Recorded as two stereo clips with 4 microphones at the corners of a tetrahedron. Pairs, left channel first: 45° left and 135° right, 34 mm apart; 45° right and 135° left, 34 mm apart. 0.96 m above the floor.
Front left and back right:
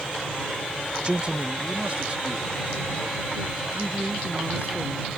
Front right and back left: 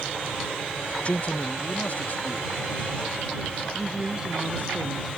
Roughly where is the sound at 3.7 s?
Behind.